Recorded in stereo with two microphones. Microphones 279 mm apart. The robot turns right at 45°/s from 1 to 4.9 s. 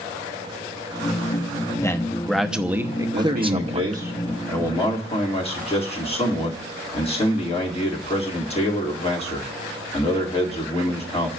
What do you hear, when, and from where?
1.8 s a man speaking: 10° left (ahead or behind), 0.8 m; by 4.0 s 25° right (ahead or behind), 0.8 m
3.1 s a man speaking: 55° right, 1.9 m; by 11.3 s 25° left, 1.9 m